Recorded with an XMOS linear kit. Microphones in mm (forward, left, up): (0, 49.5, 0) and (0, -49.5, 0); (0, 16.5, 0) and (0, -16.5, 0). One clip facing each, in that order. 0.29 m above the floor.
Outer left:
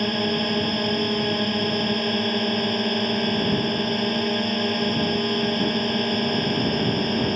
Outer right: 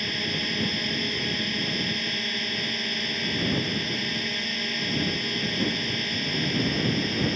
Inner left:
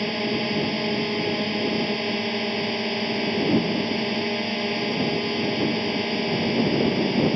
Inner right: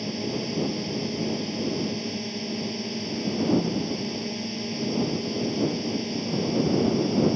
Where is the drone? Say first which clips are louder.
Outer left 9 dB, inner left 5 dB; 45° left (ahead or behind).